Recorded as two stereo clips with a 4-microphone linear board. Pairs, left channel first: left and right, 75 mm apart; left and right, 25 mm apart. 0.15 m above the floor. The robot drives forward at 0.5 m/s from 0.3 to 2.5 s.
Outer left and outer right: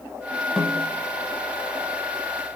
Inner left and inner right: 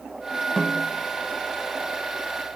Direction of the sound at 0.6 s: 10° right (ahead or behind).